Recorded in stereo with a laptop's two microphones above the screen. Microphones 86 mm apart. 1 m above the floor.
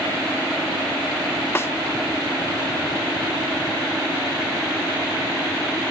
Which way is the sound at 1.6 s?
30° left (ahead or behind).